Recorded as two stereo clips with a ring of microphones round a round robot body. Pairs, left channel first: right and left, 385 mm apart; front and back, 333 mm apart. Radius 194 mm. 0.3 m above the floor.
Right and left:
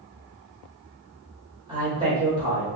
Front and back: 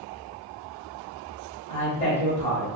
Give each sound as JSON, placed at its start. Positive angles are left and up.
{"t": 1.7, "sound": "a man speaking", "azimuth_deg": 35, "distance_m": 1.3}